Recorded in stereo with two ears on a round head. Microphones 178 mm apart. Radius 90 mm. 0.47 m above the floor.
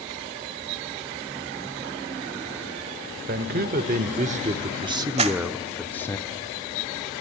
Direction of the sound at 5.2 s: 35° right (ahead or behind).